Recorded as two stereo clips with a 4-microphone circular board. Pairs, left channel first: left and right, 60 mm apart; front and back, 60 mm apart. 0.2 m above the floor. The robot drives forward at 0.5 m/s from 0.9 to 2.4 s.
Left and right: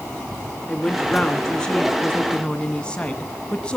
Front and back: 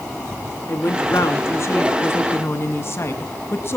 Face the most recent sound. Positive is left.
turn(degrees=20)